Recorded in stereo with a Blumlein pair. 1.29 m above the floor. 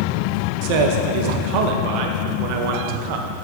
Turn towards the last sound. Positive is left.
turn(degrees=-45)